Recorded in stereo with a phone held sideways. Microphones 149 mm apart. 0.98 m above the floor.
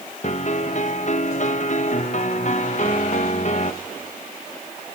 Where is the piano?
55° left (ahead or behind), 1.0 m.